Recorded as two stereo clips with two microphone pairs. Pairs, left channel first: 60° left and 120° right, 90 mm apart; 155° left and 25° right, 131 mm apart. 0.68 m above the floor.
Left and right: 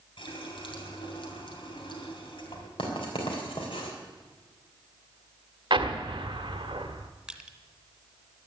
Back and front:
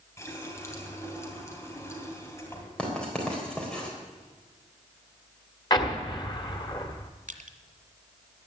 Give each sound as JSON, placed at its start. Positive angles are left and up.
{"t": 0.2, "sound": "a running tap", "azimuth_deg": 85, "distance_m": 2.5}
{"t": 2.8, "sound": "writing", "azimuth_deg": 70, "distance_m": 3.5}
{"t": 5.7, "sound": "an explosion", "azimuth_deg": -150, "distance_m": 1.4}
{"t": 7.3, "sound": "crushing", "azimuth_deg": -35, "distance_m": 1.5}